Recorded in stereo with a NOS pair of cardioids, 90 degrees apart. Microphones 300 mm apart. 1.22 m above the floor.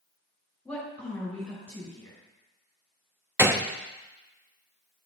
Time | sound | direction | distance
0.7 | a woman speaking | 5° left | 5.5 m
3.4 | a gunshot | 10° right | 0.8 m